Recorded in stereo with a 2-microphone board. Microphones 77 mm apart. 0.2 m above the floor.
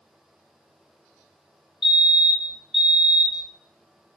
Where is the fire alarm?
5° right (ahead or behind), 2.0 m.